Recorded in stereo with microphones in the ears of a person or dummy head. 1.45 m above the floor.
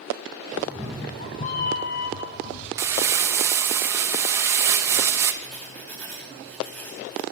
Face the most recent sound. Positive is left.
turn(degrees=5)  # may be behind; listen again after turning